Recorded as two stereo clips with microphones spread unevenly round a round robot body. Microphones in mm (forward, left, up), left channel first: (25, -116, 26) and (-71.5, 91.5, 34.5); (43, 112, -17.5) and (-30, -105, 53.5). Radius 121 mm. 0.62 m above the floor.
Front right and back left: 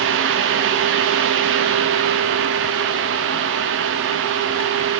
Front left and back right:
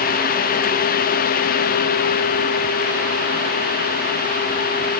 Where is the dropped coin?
I don't hear a dropped coin.